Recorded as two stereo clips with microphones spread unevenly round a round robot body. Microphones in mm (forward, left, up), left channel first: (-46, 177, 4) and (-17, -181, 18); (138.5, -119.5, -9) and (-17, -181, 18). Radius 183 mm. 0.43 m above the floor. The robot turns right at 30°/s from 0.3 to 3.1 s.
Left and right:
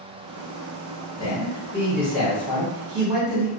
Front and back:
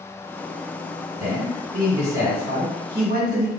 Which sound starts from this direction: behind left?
A man speaking, at 1.2 s.